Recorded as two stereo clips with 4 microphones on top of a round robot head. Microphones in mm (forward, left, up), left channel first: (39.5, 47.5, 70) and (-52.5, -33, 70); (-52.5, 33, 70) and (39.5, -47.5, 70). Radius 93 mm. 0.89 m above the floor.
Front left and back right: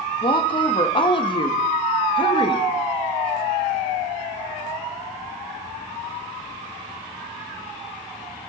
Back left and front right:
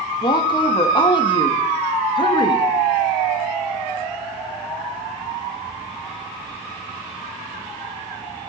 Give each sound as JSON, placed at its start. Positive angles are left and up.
{"t": 0.2, "sound": "a woman speaking", "azimuth_deg": 90, "distance_m": 1.4}